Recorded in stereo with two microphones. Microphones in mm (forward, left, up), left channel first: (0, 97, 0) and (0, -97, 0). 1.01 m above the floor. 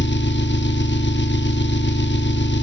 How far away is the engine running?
About 0.7 m.